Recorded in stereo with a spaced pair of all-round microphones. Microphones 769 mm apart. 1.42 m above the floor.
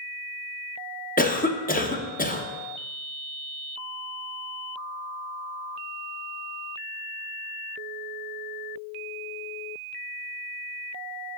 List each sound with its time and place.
1.2 s a cough: 10° left (ahead or behind), 0.7 m